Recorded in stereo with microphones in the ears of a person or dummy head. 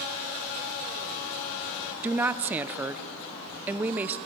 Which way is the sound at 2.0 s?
15° right (ahead or behind).